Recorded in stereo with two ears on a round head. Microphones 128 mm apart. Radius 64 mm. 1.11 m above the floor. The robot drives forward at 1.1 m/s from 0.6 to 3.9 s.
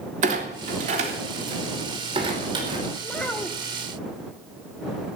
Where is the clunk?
55° right (ahead or behind), 3 m; by 2.9 s 30° right (ahead or behind), 5 m.